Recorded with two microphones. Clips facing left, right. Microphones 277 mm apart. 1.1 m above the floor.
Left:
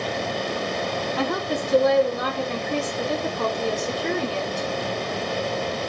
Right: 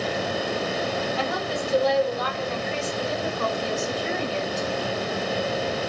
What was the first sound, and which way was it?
A woman speaking, 60° left (ahead or behind).